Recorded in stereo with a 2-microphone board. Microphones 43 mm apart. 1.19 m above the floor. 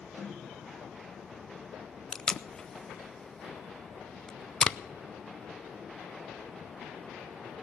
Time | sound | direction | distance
0.2 | a snare drum | 80° right | 9.5 m
2.1 | tape being pulled | 15° left (ahead or behind) | 0.5 m